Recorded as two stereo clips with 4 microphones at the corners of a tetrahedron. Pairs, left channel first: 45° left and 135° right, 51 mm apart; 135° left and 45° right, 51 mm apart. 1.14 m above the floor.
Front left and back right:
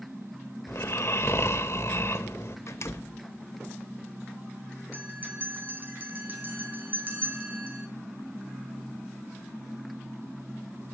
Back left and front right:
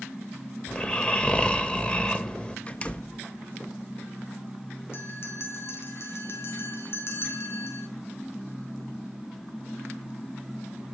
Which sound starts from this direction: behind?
A bell, at 4.9 s.